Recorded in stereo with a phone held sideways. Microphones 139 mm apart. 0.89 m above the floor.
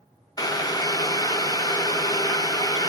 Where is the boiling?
25° left (ahead or behind), 0.7 m.